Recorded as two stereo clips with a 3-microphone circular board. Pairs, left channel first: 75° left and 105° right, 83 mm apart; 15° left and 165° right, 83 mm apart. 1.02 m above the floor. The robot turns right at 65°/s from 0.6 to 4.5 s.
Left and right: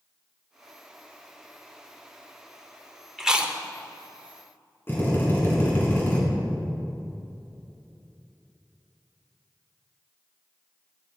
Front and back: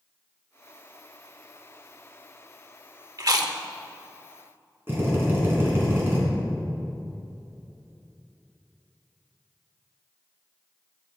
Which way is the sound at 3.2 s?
170° left.